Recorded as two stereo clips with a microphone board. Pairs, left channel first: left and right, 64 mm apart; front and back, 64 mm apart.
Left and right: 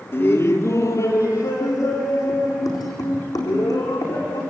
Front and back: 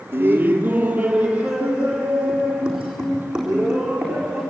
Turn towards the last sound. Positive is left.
turn(degrees=100)